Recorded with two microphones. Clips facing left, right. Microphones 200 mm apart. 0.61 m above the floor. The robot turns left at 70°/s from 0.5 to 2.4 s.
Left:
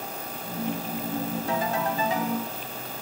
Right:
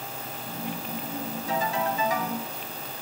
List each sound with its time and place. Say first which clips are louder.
1.5 s a ringtone: right 1 dB; 70° left, 2.0 m; by 2.4 s 5° left, 2.0 m